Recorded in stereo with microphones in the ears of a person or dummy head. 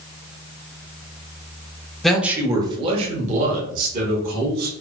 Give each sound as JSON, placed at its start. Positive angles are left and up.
{"t": 2.0, "sound": "a man speaking", "side_deg": 5, "distance_m": 0.6}